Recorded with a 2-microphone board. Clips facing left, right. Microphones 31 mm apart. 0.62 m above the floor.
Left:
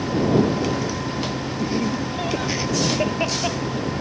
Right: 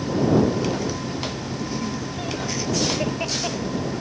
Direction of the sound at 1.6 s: 25° left (ahead or behind).